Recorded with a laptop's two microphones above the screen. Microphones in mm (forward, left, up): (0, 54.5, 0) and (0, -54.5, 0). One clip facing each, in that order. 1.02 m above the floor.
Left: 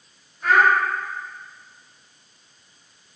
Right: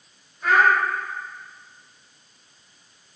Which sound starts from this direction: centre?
A child speaking, at 0.4 s.